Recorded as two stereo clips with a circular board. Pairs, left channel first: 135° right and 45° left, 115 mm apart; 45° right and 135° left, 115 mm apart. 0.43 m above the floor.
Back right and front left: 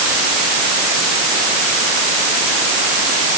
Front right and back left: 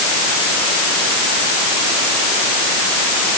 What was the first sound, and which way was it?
Only background noise.